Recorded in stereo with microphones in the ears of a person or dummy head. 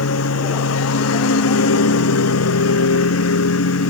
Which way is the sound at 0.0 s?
75° left (ahead or behind).